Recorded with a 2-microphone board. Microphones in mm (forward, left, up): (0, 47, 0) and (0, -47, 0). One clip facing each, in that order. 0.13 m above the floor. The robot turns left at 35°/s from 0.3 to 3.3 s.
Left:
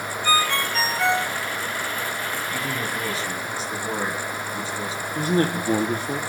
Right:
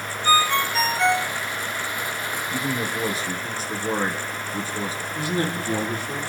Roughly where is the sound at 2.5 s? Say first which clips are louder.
Right 1 dB; right.